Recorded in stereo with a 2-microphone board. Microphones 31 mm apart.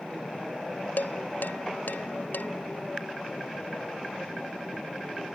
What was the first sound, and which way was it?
Dishes clattering, 75° left (ahead or behind).